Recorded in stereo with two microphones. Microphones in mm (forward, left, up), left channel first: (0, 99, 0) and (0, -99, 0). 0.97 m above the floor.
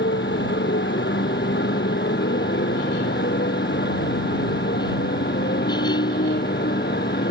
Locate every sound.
0.0 s a motorcycle: 70° left (ahead or behind); by 7.3 s 60° left (ahead or behind)